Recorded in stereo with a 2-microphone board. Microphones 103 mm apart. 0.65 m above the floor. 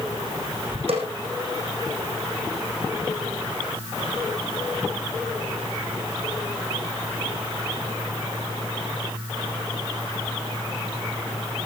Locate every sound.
0.9 s a snare drum: 70° right (ahead or behind), 5 m